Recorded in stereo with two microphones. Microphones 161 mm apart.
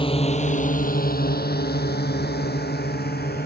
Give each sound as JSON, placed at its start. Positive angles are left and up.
{"t": 0.0, "sound": "a drone", "side_deg": 35}